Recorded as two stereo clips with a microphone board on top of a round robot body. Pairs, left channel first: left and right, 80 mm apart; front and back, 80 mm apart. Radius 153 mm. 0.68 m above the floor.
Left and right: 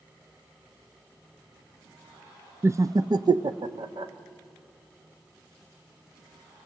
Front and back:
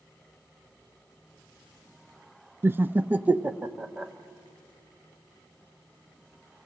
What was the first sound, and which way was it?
Laughter, 135° right.